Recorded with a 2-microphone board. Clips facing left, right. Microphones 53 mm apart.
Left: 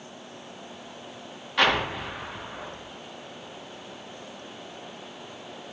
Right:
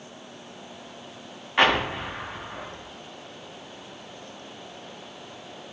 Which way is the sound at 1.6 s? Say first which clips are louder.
Right 2 dB; 30° right (ahead or behind).